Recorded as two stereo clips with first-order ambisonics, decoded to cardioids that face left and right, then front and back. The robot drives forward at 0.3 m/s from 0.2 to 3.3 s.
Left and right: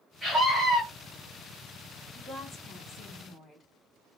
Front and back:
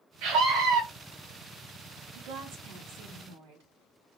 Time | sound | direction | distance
0.2 | a scream | 170° right | 0.9 m
2.1 | a woman speaking | 170° left | 1.2 m